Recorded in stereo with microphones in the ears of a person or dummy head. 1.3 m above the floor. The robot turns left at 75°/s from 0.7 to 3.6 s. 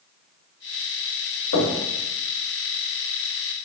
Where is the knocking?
70° left (ahead or behind), 1.3 m; by 1.8 s 55° left (ahead or behind), 1.3 m.